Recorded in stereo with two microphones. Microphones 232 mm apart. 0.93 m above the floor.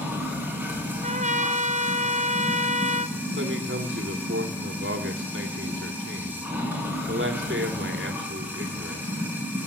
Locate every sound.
0.0 s running water: 10° right (ahead or behind), 5.5 m
1.0 s a trumpet: 35° right (ahead or behind), 0.8 m
3.4 s a man speaking: 60° right (ahead or behind), 2 m